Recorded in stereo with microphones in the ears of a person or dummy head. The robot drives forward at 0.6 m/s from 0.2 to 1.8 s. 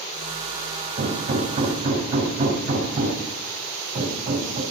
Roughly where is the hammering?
Right.